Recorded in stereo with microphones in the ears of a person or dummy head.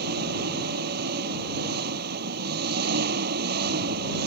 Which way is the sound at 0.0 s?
60° right (ahead or behind).